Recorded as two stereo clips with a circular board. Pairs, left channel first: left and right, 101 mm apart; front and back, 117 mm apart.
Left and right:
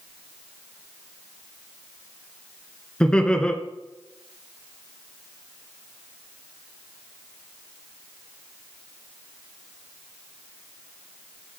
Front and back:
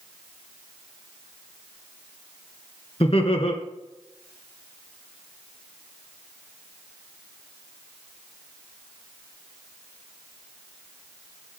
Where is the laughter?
10° left, 2 m.